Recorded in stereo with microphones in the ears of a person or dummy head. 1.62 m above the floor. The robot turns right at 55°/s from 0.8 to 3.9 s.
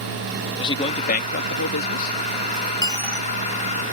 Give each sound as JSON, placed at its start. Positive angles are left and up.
{"t": 0.6, "sound": "a man speaking", "azimuth_deg": 25}
{"t": 2.8, "sound": "a dropped coin", "side_deg": 25}